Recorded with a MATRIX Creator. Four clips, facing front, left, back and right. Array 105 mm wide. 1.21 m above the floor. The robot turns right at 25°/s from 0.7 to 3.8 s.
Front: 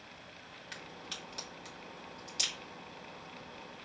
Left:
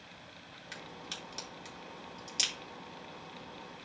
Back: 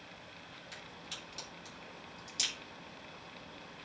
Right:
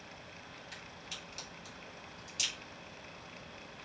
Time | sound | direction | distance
0.7 | a crack | 50° left | 3 m